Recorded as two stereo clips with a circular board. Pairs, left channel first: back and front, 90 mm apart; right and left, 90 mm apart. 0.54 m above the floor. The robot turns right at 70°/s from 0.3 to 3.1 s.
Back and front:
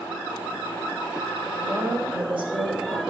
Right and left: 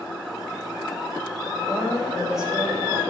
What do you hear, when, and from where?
1.6 s a woman speaking: 50° right, 3 m; by 3.0 s 45° left, 3 m